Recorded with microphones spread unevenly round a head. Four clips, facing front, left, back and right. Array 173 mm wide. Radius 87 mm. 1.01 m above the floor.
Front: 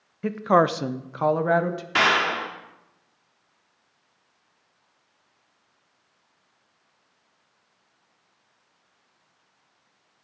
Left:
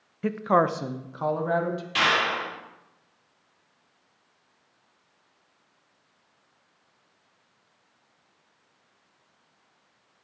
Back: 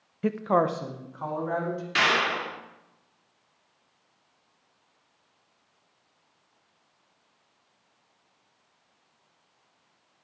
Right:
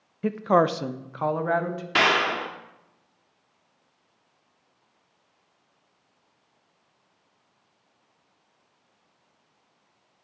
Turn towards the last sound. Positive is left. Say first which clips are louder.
# right 3 dB, front 3 dB
turn(degrees=-65)